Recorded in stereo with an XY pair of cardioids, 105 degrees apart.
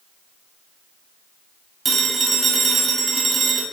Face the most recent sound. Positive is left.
turn(degrees=-35)